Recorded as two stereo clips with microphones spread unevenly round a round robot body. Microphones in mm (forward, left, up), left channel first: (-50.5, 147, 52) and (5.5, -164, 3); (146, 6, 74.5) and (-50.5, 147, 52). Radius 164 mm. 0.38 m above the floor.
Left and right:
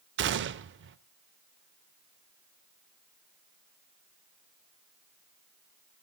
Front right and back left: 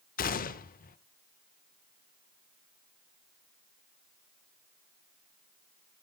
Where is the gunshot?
80° right, 0.6 m.